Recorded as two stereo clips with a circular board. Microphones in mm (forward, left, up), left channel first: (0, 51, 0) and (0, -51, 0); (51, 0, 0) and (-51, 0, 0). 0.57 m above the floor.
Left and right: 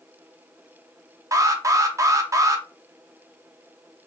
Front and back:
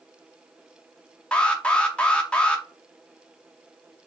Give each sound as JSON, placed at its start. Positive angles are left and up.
{"t": 1.3, "sound": "an alarm", "azimuth_deg": -70, "distance_m": 0.5}